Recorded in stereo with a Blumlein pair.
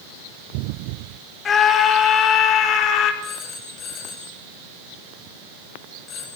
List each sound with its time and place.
1.4 s a scream: 20° left, 5 m; by 3.1 s 35° left, 4.5 m
3.2 s a phone ringing: 20° left, 6 m